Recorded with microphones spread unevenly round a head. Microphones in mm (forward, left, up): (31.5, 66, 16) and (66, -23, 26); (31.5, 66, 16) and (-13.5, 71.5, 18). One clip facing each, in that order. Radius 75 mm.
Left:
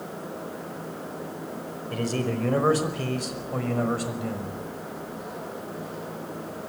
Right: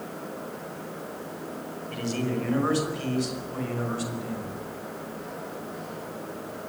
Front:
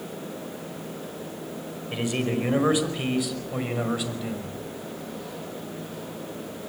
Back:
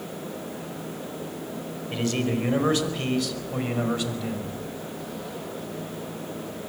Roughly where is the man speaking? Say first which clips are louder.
Left 2 dB, even; ahead left.